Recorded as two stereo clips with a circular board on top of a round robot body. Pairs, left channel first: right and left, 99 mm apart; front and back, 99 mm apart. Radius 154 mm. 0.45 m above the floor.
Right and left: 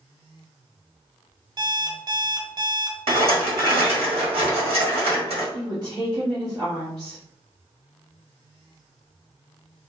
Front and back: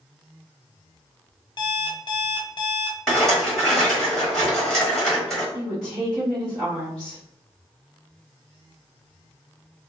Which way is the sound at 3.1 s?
85° left.